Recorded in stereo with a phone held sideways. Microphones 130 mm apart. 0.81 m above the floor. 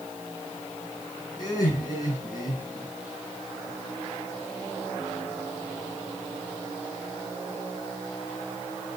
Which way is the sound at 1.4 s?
30° left (ahead or behind).